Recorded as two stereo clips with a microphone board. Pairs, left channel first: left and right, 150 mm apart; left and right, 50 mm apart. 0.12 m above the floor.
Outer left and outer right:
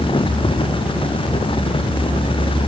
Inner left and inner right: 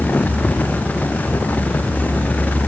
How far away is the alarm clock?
I don't hear an alarm clock.